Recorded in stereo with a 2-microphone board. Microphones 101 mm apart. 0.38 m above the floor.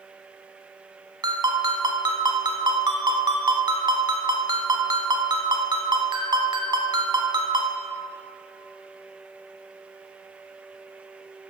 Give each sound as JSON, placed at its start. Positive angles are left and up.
{"t": 1.2, "sound": "a ringtone", "side_deg": -45, "distance_m": 1.3}